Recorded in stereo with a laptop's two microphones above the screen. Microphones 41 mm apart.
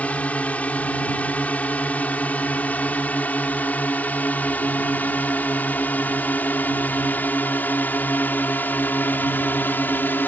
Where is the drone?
35° left (ahead or behind); by 10.3 s 50° left (ahead or behind).